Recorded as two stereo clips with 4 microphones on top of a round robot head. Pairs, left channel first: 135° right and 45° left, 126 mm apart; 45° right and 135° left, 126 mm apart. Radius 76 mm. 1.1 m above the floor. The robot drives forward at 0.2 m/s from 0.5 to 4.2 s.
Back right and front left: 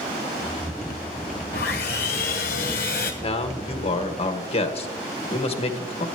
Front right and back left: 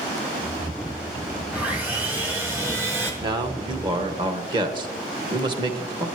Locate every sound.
1.5 s sawing: 145° right, 1.6 m; by 3.1 s 150° right, 1.9 m
3.2 s a man speaking: 170° right, 1.4 m; by 6.1 s 175° right, 1.6 m